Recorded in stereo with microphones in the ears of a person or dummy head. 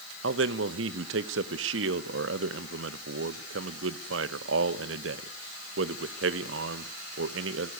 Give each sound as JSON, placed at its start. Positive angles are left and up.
{"t": 0.2, "sound": "a man speaking", "side_deg": -70, "distance_m": 1.1}